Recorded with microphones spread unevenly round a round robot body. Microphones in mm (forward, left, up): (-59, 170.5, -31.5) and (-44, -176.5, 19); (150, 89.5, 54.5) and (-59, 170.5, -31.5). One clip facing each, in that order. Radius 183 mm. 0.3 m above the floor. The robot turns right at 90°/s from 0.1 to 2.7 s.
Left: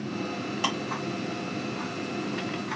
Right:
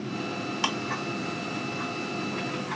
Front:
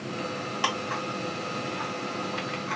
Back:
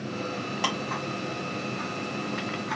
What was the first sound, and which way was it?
Ticking, 145° right.